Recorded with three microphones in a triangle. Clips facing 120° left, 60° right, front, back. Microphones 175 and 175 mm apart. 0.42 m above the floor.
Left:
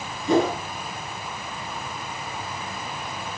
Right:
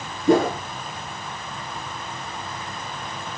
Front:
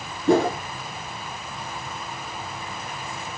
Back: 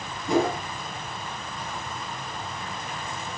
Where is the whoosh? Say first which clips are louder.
Right 3 dB, front 4 dB; 25° right, 4.5 m.